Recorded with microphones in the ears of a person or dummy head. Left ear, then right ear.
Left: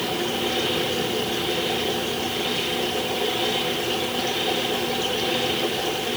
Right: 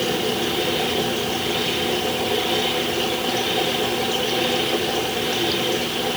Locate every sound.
Only background noise.